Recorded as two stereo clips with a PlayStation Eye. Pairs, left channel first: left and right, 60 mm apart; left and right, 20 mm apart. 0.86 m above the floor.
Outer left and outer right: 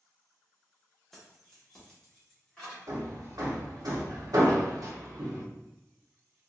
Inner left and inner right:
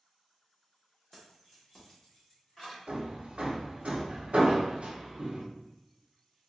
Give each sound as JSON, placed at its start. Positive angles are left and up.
{"t": 1.1, "sound": "keys jangling", "side_deg": 5, "distance_m": 1.1}
{"t": 2.9, "sound": "hammering", "side_deg": -80, "distance_m": 0.8}